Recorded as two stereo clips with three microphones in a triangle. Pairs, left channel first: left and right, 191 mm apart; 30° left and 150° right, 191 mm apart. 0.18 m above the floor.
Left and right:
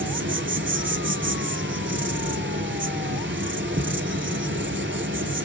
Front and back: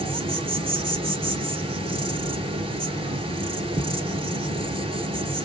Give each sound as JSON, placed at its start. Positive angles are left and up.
{"t": 0.0, "sound": "an insect", "azimuth_deg": -85, "distance_m": 0.7}